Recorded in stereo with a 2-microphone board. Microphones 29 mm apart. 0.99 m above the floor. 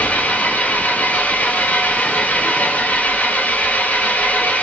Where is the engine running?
60° left (ahead or behind), 1.1 m.